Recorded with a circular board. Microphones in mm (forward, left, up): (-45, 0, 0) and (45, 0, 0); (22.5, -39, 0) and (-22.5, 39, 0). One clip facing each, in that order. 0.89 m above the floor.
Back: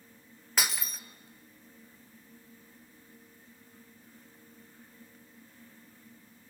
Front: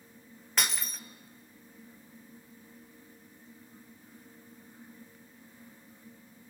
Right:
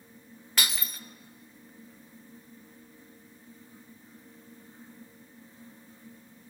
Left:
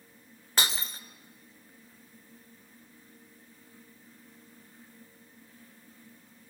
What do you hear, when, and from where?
0.6 s breaking glass: 95° left, 0.6 m